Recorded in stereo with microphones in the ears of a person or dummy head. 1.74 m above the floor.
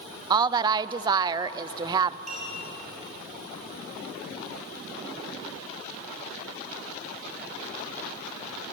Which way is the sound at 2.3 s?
50° right (ahead or behind).